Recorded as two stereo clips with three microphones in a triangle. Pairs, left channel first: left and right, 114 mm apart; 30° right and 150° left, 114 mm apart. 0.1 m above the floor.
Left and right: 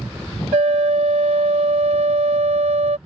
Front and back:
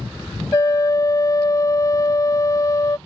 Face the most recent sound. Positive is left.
turn(degrees=-90)